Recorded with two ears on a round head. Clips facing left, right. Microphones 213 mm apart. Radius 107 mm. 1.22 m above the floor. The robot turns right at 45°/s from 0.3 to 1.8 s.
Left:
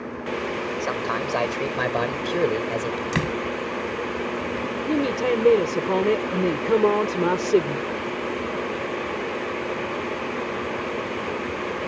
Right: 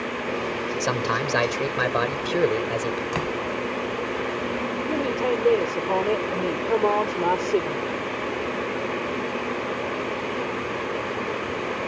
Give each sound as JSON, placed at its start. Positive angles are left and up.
{"t": 0.8, "sound": "a man speaking", "azimuth_deg": -50}
{"t": 3.1, "sound": "a door slam", "side_deg": 30}
{"t": 4.9, "sound": "a woman speaking", "side_deg": 30}